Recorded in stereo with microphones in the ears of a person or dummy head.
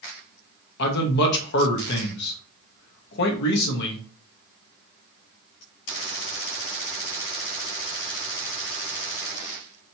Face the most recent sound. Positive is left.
turn(degrees=60)  # may be behind; listen again after turning